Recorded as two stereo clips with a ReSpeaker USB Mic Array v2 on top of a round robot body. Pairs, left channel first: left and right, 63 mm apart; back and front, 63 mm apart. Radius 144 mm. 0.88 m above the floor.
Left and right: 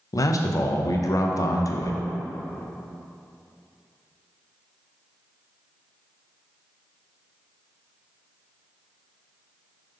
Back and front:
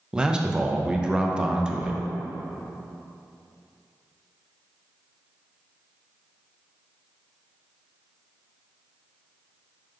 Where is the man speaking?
75° left, 0.6 m.